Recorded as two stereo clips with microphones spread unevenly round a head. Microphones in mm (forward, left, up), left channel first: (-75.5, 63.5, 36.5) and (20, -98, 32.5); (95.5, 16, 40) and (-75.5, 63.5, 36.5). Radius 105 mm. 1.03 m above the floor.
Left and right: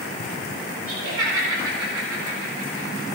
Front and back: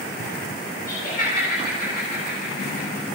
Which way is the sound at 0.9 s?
60° right.